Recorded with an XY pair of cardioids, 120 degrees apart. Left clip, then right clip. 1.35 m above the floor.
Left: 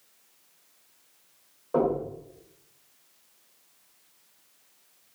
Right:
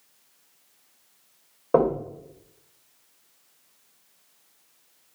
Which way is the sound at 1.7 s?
65° right.